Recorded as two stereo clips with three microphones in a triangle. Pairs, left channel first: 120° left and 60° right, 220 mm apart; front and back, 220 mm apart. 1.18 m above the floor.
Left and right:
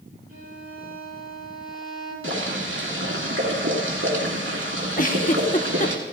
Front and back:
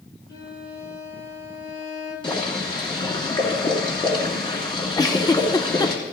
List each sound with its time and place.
0.3 s a violin: 15° right, 7 m
2.2 s boiling: 65° right, 2.5 m
5.0 s a giggle: 75° left, 0.9 m